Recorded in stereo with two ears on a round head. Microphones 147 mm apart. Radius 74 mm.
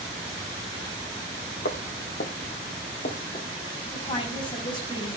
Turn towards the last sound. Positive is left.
turn(degrees=35)  # may be behind; listen again after turning